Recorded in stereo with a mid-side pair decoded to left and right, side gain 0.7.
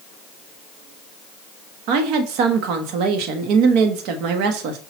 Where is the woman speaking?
65° right, 0.9 m.